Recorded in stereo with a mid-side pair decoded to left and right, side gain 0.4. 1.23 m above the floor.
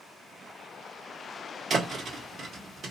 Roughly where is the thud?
Ahead right.